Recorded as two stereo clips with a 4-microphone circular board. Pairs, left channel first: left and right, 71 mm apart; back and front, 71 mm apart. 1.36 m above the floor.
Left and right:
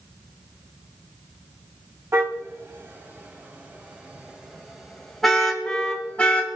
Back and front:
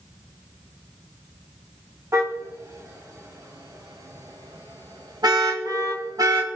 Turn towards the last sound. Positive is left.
turn(degrees=20)